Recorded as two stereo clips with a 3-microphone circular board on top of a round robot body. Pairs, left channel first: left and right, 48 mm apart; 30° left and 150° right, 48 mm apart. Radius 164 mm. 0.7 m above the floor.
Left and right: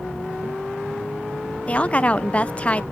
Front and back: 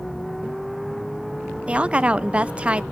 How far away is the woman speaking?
About 0.8 m.